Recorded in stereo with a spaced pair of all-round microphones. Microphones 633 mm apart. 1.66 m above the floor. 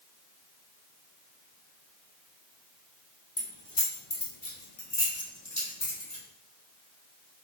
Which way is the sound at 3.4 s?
30° left (ahead or behind).